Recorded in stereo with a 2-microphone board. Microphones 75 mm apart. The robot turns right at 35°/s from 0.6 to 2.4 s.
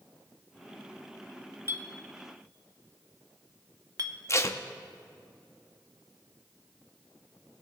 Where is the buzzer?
No buzzer in this recording.